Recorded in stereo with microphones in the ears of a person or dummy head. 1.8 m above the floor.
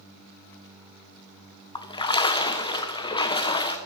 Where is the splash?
20° left (ahead or behind), 1.2 m.